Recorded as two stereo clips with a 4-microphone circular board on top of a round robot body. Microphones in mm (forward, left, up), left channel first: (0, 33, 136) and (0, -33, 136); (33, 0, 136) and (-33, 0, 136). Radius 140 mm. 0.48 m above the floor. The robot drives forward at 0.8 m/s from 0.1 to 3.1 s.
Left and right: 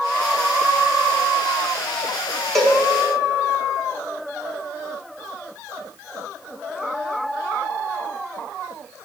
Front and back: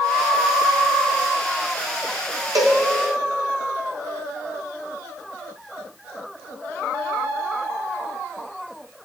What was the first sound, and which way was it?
A cowbell, 175° left.